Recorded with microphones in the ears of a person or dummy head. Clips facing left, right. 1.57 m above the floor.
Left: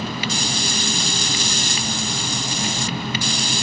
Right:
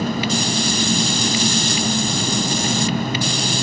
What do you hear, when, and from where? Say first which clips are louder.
0.0 s an engine running: right 6 dB; 40° right (ahead or behind), 0.9 m